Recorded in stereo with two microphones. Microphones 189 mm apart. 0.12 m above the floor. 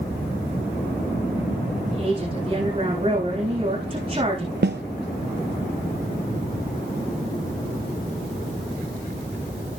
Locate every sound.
1.9 s a woman speaking: 30° right (ahead or behind), 8 m
4.6 s a snare drum: 65° right (ahead or behind), 0.8 m